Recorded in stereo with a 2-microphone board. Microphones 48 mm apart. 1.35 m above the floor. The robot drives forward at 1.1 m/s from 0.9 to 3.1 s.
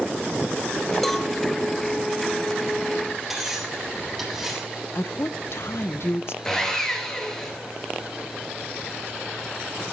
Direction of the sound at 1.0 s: 5° left (ahead or behind).